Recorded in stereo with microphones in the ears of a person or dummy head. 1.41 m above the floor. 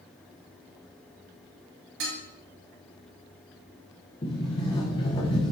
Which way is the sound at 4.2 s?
30° left (ahead or behind).